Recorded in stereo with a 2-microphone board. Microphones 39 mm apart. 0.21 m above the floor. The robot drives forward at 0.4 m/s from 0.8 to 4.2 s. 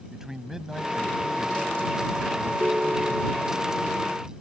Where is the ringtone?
65° right (ahead or behind); by 3.5 s 60° right (ahead or behind).